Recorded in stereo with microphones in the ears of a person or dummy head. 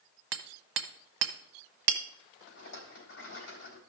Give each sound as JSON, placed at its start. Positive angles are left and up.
{"t": 0.3, "sound": "hammering", "side_deg": -60, "distance_m": 0.9}
{"t": 2.5, "sound": "a rattle", "side_deg": 65, "distance_m": 3.0}